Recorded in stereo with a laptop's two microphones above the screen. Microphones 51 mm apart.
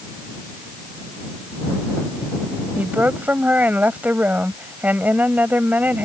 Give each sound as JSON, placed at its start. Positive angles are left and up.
{"t": 2.8, "sound": "a woman speaking", "side_deg": -35}